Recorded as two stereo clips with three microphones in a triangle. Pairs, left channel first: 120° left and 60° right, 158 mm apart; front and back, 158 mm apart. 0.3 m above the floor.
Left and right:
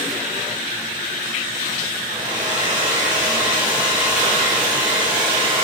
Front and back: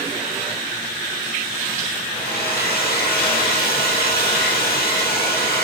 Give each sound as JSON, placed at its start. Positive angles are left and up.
{"t": 2.1, "sound": "a hair dryer", "azimuth_deg": 0, "distance_m": 2.5}